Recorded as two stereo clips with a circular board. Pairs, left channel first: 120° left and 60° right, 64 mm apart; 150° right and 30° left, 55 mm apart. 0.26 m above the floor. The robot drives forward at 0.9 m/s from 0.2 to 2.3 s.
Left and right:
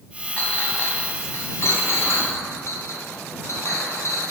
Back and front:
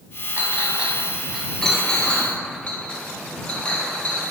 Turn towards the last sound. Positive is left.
turn(degrees=145)